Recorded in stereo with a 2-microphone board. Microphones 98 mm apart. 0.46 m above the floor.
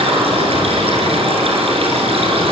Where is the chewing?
No chewing in this recording.